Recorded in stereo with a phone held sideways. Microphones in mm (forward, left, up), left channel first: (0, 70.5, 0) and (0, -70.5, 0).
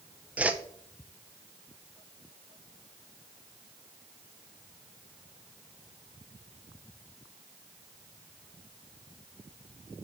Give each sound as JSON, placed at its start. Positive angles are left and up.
{"t": 0.4, "sound": "a whoosh", "side_deg": -10, "distance_m": 0.5}